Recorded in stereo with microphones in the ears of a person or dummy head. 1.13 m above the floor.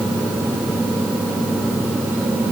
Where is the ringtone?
No ringtone in this recording.